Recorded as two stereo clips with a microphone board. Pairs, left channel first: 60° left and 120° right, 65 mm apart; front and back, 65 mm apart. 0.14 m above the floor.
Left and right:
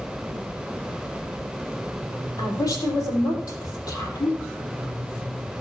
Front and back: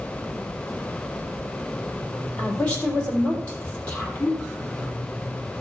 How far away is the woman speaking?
About 4 m.